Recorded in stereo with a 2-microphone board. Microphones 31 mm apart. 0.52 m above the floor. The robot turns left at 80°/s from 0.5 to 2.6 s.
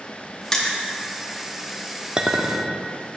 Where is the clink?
30° right (ahead or behind), 0.6 m; by 2.8 s 20° right (ahead or behind), 0.6 m.